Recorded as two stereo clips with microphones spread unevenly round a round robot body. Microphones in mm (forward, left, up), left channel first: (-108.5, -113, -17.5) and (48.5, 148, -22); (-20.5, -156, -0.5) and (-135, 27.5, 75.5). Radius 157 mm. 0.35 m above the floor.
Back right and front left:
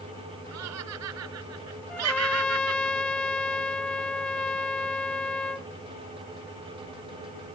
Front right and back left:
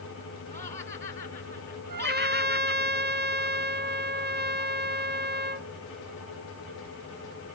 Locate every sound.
0.5 s laughter: 15° left
1.9 s a trumpet: 155° left